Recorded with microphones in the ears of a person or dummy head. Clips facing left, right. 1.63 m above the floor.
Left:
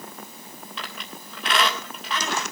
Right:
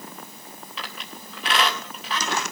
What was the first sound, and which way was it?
A squeak, 5° right (ahead or behind).